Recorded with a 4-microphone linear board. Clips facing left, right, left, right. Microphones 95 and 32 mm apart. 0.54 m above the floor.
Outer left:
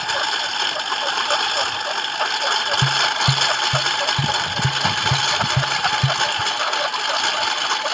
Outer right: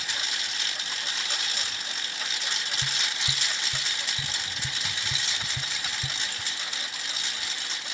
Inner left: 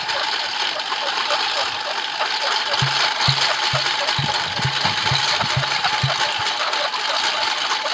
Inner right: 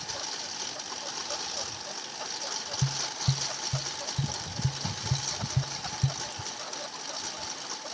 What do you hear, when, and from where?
0.0 s a lawn mower: 60° left (ahead or behind); by 8.0 s 65° left (ahead or behind)
2.8 s tapping: 70° left (ahead or behind)